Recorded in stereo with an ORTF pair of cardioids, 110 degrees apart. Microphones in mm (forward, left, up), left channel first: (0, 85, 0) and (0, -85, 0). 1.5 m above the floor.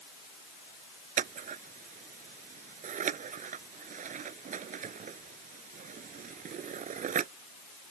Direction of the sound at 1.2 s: 50° right.